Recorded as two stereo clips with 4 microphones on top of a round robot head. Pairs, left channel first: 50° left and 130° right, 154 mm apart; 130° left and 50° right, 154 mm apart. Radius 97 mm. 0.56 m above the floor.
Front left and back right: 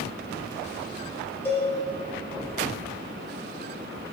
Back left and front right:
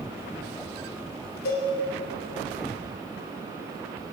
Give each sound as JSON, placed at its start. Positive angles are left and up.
{"t": 1.4, "sound": "a cowbell", "azimuth_deg": 125, "distance_m": 2.0}